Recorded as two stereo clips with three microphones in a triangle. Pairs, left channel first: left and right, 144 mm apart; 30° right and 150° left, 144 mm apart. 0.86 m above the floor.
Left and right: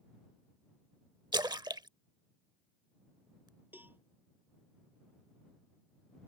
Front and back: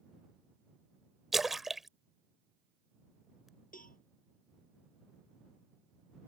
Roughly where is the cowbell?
Ahead.